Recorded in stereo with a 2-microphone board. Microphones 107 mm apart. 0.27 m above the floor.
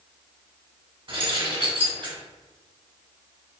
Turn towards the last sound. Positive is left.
turn(degrees=-60)  # may be behind; listen again after turning